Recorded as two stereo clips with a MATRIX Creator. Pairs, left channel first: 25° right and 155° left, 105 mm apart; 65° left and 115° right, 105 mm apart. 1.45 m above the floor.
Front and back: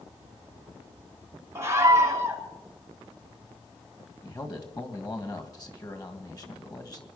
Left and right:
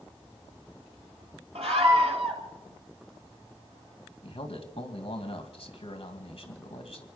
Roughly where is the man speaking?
Ahead left.